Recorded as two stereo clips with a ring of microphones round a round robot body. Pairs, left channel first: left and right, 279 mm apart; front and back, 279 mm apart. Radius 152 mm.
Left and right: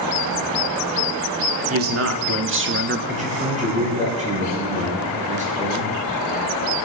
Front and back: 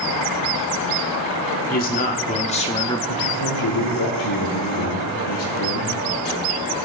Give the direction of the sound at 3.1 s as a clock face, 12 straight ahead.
1 o'clock.